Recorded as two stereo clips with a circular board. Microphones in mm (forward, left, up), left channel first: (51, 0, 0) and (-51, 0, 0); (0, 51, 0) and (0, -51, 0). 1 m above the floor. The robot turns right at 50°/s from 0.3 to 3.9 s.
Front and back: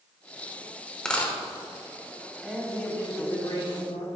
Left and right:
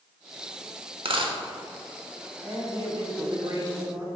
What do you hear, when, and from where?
1.1 s a dropped coin: 80° right, 1.0 m; by 1.3 s 70° right, 1.0 m
2.4 s a man speaking: 100° right, 2.5 m; by 4.2 s 25° right, 2.5 m